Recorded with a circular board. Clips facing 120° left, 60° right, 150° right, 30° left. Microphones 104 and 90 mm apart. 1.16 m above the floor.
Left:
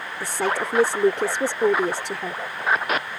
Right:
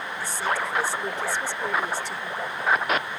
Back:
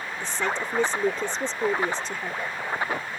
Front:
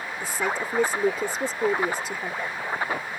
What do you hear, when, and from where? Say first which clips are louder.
0.2 s a woman speaking: left 3 dB, front 1 dB; 110° left